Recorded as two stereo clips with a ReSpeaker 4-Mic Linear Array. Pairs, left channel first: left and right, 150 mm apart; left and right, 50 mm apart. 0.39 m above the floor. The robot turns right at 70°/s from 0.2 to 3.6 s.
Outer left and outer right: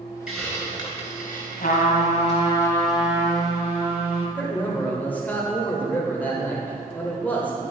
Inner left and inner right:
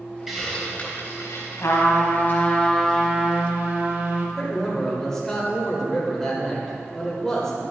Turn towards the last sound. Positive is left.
turn(degrees=10)  # may be behind; listen again after turning